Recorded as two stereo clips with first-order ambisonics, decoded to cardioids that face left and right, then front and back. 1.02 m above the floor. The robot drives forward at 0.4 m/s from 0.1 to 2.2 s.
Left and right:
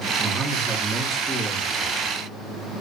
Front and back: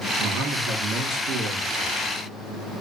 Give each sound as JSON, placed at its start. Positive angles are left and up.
{"t": 0.2, "sound": "a man speaking", "azimuth_deg": -155, "distance_m": 1.7}